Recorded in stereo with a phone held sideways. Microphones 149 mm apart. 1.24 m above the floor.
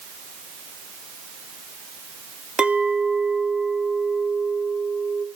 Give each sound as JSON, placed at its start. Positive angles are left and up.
{"t": 2.6, "sound": "a clink", "side_deg": -5, "distance_m": 0.9}